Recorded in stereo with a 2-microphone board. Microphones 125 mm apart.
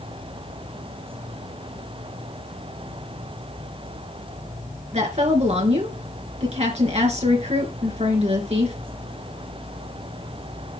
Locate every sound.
4.9 s a woman speaking: 65° right (ahead or behind), 4 m